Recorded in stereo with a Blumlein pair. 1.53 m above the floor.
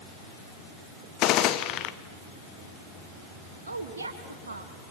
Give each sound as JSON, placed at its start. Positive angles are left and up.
{"t": 1.2, "sound": "a gunshot", "azimuth_deg": 35, "distance_m": 1.2}
{"t": 3.7, "sound": "a woman speaking", "azimuth_deg": -70, "distance_m": 2.5}